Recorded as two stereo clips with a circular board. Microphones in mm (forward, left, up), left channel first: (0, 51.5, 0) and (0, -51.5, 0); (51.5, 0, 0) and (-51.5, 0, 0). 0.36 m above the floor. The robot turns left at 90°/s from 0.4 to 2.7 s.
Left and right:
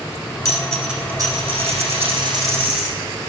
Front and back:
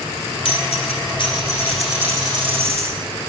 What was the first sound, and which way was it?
A dropped coin, 35° left.